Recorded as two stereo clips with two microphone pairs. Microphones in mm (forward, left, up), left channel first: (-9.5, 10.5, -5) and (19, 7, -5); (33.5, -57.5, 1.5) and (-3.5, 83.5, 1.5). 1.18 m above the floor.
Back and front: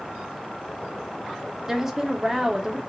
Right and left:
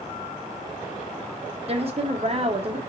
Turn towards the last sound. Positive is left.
turn(degrees=70)